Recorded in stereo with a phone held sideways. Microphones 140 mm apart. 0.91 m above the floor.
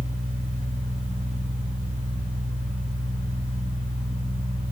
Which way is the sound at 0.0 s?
70° right (ahead or behind).